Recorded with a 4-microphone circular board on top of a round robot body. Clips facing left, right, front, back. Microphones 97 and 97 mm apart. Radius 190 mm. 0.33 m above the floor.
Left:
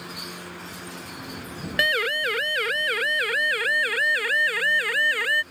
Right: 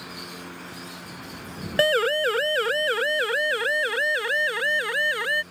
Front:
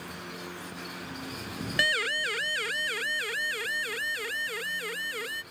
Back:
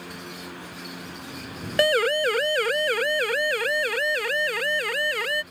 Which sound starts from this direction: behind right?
A siren, at 1.8 s.